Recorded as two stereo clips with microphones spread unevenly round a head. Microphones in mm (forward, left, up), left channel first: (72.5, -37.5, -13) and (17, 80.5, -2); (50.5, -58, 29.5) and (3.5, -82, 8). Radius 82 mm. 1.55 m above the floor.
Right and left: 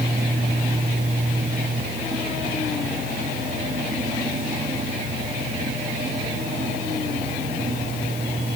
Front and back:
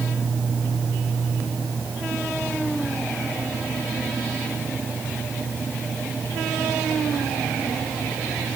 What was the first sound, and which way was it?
Only background noise.